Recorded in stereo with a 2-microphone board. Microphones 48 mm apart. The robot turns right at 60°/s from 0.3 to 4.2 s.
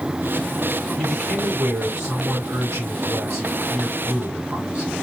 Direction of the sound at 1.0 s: 145° left.